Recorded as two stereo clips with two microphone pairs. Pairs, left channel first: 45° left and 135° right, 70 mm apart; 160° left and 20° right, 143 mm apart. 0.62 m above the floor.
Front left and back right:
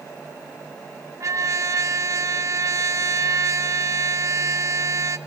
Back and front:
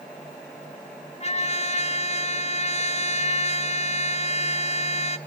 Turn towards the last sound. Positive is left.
turn(degrees=-175)